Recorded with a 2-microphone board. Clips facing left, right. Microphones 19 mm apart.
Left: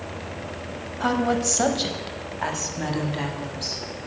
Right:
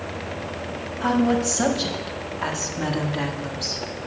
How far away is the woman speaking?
About 1.2 m.